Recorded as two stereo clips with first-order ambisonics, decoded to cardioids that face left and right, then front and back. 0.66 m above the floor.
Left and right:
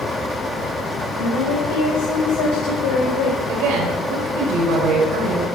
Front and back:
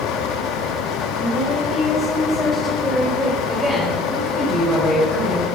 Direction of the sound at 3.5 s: 100° right.